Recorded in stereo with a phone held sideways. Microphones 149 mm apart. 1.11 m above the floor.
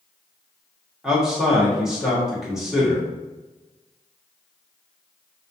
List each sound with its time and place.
1.0 s a man speaking: 5° right (ahead or behind), 1.8 m